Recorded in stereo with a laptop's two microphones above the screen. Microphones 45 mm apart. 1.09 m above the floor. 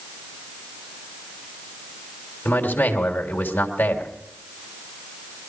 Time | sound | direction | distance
2.5 | a man speaking | 55° left (ahead or behind) | 3 m